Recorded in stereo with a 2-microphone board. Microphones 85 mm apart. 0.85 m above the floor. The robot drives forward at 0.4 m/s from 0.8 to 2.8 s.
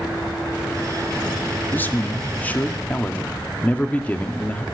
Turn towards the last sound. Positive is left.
turn(degrees=20)  # may be behind; listen again after turning